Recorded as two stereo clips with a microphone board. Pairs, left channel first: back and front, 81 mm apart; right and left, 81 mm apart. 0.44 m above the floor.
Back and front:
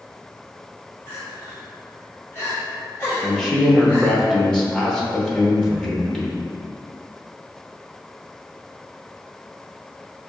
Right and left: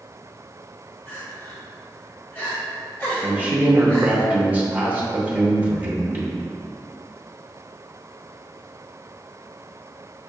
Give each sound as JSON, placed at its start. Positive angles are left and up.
{"t": 1.1, "sound": "crying", "azimuth_deg": -140, "distance_m": 1.4}
{"t": 3.2, "sound": "a man speaking", "azimuth_deg": 110, "distance_m": 0.7}